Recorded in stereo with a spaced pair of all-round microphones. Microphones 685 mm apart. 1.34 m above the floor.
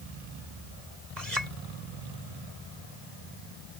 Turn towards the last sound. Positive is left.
turn(degrees=-75)  # may be behind; listen again after turning